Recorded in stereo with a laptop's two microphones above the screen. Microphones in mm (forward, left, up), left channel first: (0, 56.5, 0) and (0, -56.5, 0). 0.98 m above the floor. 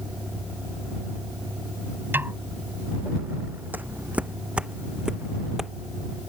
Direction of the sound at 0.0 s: 10° right (ahead or behind).